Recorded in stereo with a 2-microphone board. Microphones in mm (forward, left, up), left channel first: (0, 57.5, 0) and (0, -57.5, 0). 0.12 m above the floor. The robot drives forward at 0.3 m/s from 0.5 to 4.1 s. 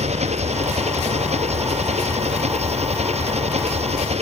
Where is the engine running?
70° right (ahead or behind).